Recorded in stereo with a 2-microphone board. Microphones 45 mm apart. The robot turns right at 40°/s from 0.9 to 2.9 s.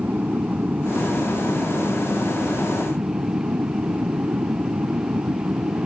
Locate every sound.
0.0 s an aircraft: 140° right; by 5.9 s 60° right